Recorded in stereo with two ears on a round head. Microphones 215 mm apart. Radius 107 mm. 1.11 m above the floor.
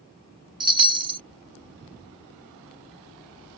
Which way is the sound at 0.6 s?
20° right (ahead or behind).